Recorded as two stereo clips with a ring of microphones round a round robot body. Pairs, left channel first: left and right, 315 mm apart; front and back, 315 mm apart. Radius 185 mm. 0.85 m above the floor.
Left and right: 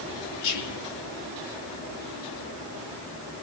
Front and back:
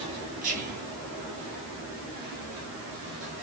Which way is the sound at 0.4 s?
115° left.